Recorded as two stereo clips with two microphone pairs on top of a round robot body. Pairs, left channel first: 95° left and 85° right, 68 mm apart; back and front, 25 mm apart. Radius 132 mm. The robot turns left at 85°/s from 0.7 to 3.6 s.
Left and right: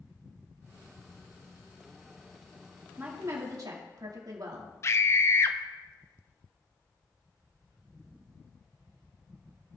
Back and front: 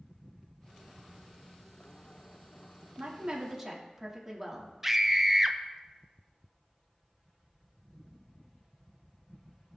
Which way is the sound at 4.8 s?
65° left.